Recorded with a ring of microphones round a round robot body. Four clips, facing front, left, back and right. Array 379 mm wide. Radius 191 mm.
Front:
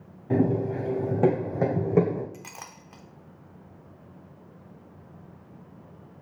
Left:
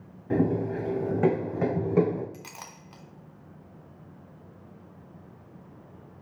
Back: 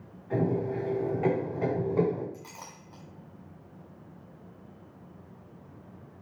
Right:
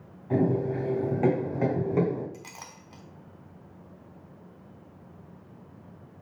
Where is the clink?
10° left, 1.3 m.